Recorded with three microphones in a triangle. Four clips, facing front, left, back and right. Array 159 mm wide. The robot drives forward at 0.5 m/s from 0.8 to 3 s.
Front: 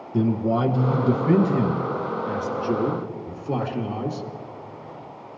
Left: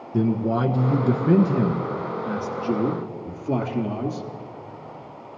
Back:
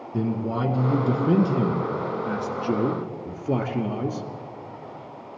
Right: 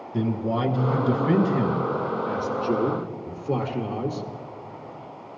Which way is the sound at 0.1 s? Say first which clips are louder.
Left 3 dB, front 4 dB; 85° left.